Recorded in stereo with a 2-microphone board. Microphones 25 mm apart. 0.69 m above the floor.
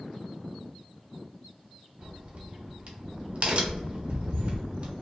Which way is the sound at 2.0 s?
50° right (ahead or behind).